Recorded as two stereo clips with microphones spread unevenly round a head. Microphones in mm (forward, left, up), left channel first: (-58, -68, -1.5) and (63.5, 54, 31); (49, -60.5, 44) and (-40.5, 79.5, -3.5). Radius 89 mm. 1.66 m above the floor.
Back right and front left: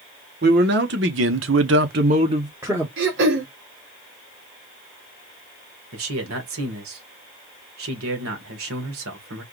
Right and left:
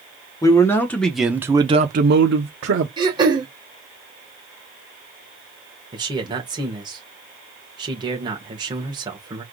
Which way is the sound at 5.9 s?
55° left.